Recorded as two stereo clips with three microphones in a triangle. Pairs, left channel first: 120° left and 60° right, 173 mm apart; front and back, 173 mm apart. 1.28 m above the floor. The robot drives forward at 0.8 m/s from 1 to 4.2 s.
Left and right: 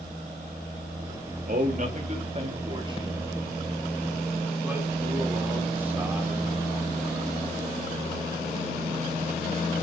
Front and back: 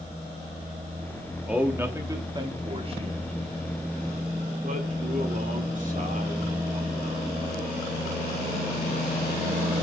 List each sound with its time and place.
1.5 s a man speaking: 95° right, 2 m; by 7.3 s 140° right, 3 m